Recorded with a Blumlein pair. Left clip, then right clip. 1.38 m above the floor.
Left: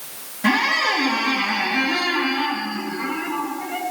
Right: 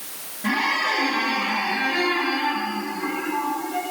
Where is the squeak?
65° left, 1.3 m.